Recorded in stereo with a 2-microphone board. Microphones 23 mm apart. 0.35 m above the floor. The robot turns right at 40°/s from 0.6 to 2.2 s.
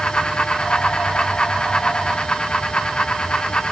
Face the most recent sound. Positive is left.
No sound to turn to.